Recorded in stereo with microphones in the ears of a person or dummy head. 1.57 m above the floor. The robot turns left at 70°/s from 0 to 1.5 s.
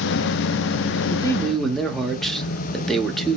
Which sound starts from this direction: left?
A man speaking, at 1.1 s.